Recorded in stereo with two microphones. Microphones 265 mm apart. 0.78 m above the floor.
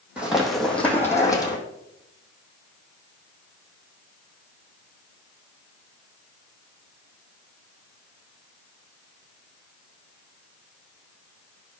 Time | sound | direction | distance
0.2 | running footsteps | 5° right (ahead or behind) | 2 m